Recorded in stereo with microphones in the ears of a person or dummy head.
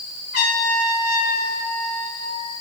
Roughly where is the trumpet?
Left.